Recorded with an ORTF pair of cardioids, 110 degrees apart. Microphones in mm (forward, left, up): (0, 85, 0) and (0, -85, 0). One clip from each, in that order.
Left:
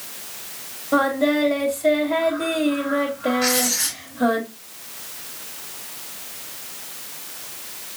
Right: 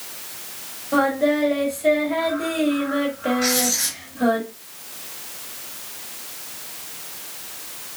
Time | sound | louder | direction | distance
0.9 | singing | even | 10° left | 2.5 m
3.4 | writing | right 1 dB | 5° left | 2.5 m